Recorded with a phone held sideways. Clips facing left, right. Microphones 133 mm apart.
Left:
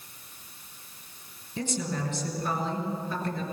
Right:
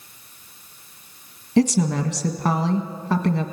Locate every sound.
1.6 s a woman speaking: 70° right (ahead or behind), 1.7 m